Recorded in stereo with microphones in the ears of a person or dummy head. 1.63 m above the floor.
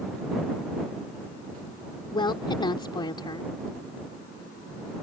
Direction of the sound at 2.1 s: 25° left (ahead or behind).